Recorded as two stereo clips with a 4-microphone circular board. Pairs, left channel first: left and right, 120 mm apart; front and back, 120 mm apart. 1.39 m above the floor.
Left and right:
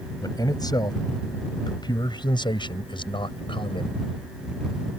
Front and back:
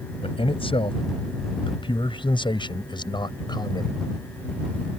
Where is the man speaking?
35° left; by 3.9 s 50° left.